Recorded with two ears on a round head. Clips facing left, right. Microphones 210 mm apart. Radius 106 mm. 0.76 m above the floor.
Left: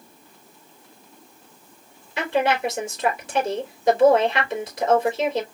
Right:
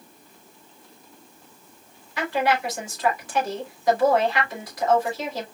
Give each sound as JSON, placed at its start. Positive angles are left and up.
{"t": 2.2, "sound": "a woman speaking", "side_deg": 25, "distance_m": 3.5}